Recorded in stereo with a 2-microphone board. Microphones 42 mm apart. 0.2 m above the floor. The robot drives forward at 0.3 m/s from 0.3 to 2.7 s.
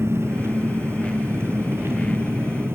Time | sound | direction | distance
0.0 | an engine running | 75° right (ahead or behind) | 2.5 m